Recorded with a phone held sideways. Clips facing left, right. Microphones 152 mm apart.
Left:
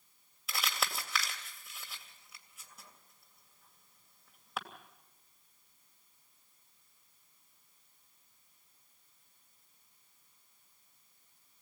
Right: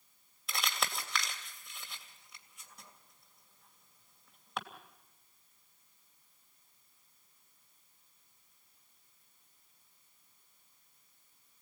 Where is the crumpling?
5° left (ahead or behind), 2.5 m.